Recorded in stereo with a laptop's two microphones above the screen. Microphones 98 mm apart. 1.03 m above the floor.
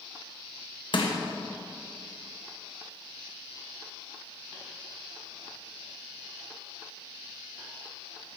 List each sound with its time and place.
0.9 s crushing: 55° left (ahead or behind), 1.3 m